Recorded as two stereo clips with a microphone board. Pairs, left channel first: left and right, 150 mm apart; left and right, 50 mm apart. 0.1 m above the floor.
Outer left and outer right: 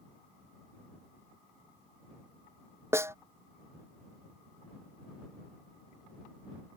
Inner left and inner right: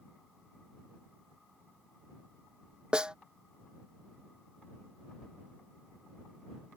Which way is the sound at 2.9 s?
15° right (ahead or behind).